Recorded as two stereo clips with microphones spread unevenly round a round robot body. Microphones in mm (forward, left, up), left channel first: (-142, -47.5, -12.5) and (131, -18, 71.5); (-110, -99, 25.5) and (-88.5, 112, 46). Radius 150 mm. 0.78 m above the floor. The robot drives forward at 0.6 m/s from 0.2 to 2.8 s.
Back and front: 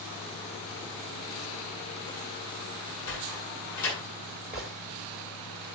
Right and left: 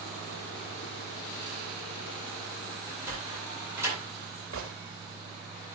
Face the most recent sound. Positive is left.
turn(degrees=100)